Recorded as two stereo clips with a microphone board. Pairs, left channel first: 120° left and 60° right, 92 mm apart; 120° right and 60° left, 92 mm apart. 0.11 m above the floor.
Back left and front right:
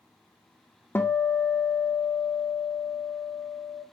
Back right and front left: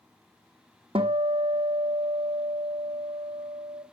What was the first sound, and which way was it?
A guitar, 50° left.